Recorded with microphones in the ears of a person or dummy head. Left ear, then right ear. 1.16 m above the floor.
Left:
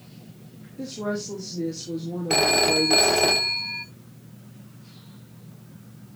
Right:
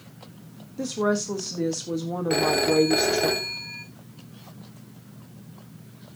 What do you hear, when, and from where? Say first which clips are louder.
0.8 s a woman speaking: right 5 dB; 50° right (ahead or behind), 1.2 m
2.3 s a phone ringing: left 2 dB; 25° left (ahead or behind), 0.8 m